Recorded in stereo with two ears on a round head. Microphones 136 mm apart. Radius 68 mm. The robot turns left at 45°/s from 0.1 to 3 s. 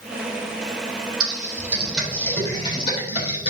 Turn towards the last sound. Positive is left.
turn(degrees=45)  # may be behind; listen again after turning